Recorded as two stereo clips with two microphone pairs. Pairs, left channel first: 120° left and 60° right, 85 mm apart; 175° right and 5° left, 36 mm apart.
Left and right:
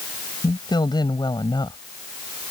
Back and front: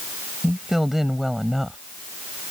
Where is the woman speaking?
85° left.